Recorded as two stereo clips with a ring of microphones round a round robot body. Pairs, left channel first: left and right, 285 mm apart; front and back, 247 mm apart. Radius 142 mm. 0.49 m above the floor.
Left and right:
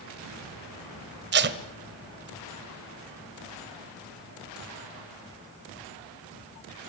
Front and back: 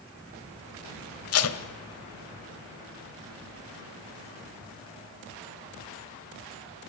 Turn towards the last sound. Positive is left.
turn(degrees=-35)